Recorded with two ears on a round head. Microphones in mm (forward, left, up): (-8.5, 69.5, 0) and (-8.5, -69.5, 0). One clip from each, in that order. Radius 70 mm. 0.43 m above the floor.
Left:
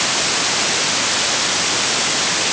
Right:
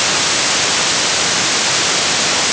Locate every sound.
Only background noise.